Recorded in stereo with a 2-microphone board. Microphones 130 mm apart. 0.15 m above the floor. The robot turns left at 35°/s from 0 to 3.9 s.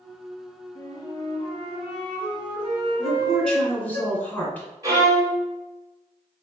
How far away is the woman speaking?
About 1.4 m.